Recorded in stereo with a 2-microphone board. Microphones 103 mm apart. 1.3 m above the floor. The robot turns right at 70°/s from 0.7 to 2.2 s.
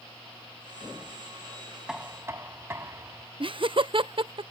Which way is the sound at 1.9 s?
5° right (ahead or behind).